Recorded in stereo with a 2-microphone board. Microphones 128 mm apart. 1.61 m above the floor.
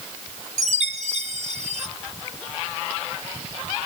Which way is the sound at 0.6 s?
65° right (ahead or behind).